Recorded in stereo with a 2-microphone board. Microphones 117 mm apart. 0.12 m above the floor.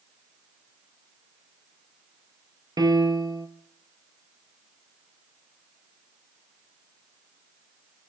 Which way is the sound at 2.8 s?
35° right (ahead or behind).